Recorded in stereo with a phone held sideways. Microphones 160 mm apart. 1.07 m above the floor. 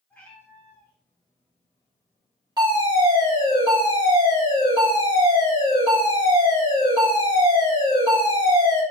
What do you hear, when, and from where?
0.1 s a cat meowing: 10° left (ahead or behind), 3.5 m; by 3.6 s 40° left (ahead or behind), 2 m
2.6 s a fire alarm: 25° right (ahead or behind), 3.5 m